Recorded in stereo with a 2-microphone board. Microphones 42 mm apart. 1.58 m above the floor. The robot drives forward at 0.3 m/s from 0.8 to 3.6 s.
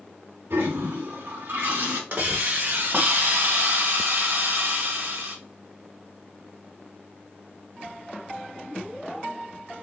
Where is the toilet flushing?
75° right (ahead or behind), 2.5 m; by 2.0 s 70° right (ahead or behind), 2.5 m.